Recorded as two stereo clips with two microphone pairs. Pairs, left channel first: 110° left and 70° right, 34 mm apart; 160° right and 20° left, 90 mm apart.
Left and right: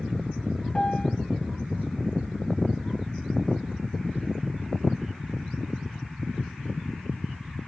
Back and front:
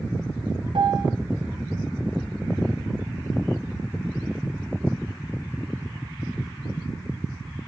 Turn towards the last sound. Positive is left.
turn(degrees=40)